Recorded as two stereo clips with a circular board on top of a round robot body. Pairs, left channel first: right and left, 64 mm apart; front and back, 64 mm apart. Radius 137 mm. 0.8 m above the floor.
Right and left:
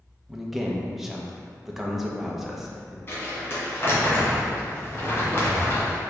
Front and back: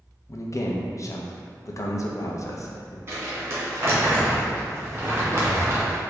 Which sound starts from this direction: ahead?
A man speaking, at 0.3 s.